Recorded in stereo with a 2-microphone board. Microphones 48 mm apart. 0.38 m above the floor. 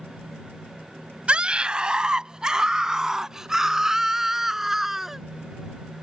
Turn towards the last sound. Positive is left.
turn(degrees=-5)  # may be behind; listen again after turning